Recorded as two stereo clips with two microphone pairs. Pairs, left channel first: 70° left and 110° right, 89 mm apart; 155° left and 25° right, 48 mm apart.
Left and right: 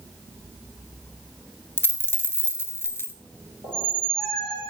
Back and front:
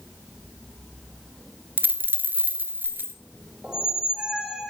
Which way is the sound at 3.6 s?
50° left.